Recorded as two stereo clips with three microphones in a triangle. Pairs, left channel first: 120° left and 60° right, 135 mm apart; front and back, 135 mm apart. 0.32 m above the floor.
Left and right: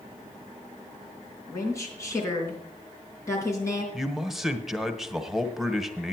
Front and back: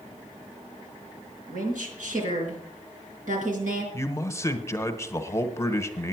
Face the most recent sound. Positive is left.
turn(degrees=25)